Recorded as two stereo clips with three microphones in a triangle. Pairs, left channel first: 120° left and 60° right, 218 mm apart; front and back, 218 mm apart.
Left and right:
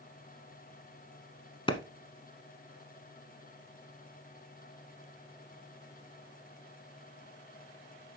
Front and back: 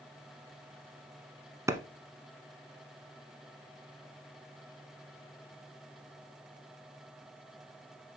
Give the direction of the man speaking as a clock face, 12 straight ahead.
No man speaking in this recording.